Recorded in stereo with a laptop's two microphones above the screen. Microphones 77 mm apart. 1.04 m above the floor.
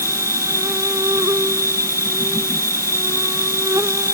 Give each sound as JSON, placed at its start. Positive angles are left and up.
{"t": 0.0, "sound": "an insect", "side_deg": -40}